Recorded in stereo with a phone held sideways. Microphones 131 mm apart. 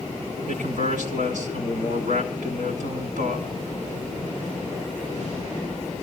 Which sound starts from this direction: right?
A man speaking, at 0.5 s.